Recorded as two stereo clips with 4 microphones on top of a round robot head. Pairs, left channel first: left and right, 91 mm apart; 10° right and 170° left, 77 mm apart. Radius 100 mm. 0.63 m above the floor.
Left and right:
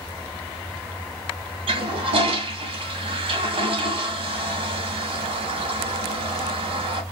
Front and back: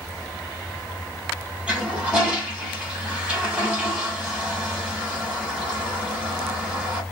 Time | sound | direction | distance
1.7 | a toilet flushing | 105° right | 1.2 m